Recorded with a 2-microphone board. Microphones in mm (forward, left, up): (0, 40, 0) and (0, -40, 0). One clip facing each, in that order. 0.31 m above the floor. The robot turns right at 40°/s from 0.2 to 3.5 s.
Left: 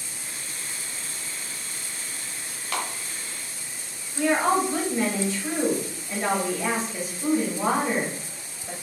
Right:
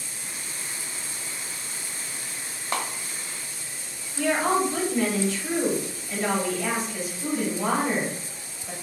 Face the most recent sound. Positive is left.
turn(degrees=25)  # may be behind; listen again after turning